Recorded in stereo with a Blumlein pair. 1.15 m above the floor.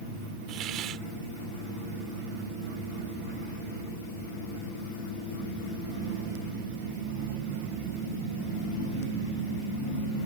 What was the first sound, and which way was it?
A hiss, 35° right.